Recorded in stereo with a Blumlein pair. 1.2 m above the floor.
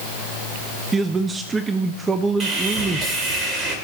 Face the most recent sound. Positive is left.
turn(degrees=-25)